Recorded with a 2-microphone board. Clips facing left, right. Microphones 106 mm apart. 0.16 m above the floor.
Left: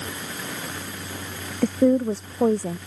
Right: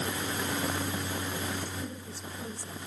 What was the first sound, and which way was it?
A woman speaking, 75° left (ahead or behind).